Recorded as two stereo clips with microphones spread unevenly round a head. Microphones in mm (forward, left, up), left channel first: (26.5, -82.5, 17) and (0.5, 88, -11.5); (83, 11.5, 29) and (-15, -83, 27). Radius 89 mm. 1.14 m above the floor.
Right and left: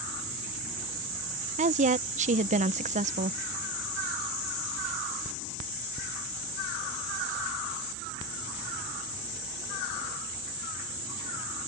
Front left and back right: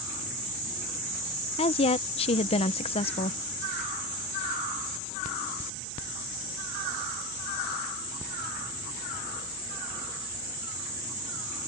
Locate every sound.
1.6 s a woman speaking: 80° left